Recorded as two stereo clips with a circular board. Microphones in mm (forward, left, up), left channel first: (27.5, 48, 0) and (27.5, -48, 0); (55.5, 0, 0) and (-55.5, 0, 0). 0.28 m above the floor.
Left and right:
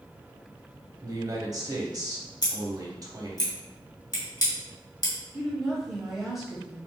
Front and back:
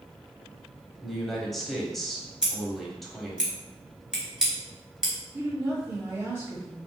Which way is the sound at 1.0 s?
85° right.